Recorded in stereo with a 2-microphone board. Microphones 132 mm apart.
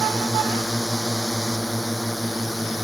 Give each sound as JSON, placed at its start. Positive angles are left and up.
{"t": 0.0, "sound": "a drone", "side_deg": 0}